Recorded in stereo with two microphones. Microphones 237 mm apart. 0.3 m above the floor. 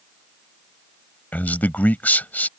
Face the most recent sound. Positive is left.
turn(degrees=5)  # may be behind; listen again after turning